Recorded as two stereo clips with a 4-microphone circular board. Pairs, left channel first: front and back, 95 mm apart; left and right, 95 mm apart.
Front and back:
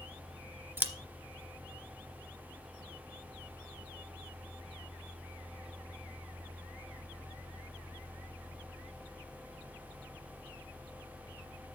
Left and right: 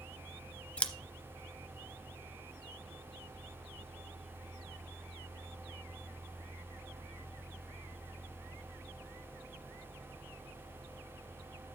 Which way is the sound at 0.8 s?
150° left.